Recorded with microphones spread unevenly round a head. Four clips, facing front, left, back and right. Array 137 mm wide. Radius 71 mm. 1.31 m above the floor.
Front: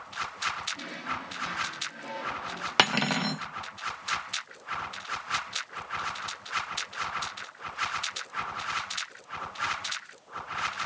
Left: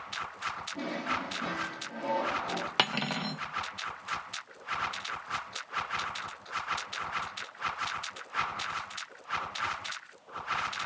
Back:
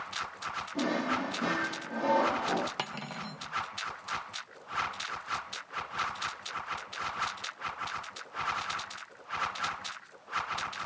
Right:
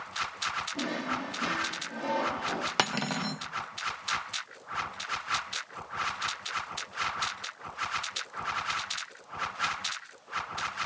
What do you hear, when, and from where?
0.8 s a drawer: 170° right, 1.7 m
2.8 s cutlery clinking: 20° right, 0.6 m